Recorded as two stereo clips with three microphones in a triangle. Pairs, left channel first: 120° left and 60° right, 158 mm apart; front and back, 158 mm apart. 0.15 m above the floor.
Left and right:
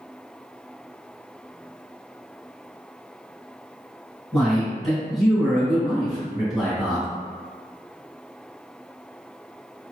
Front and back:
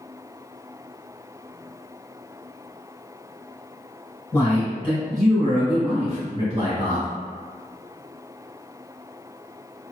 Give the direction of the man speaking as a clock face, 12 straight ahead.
11 o'clock.